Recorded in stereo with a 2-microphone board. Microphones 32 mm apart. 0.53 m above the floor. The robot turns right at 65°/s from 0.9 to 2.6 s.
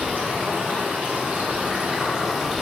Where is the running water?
105° right, 1.0 m; by 2.6 s 10° left, 1.0 m.